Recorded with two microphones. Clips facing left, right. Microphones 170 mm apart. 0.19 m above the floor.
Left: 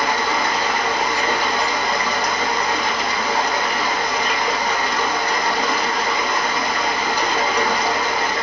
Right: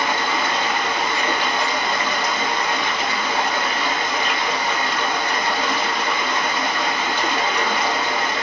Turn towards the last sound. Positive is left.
turn(degrees=40)  # may be behind; listen again after turning